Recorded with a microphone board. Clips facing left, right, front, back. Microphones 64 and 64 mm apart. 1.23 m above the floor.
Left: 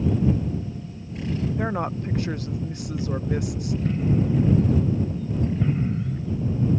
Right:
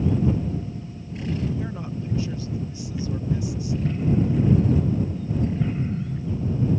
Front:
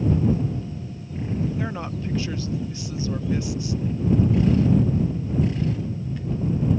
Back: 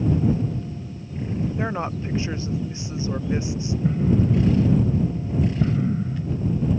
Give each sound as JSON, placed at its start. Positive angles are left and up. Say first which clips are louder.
{"t": 1.6, "sound": "a woman speaking", "louder": "left 5 dB, back 3 dB", "azimuth_deg": 115}
{"t": 3.8, "sound": "an explosion", "louder": "even, back 1 dB", "azimuth_deg": 170}